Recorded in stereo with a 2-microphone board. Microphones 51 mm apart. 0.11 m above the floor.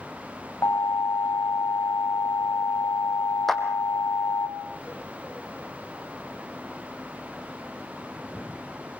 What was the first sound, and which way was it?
An alarm, 65° left (ahead or behind).